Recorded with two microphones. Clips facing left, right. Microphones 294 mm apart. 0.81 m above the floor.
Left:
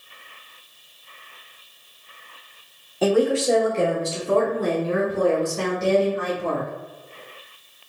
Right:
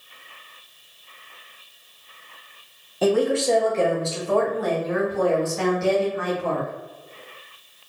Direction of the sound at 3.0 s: Centre (ahead or behind).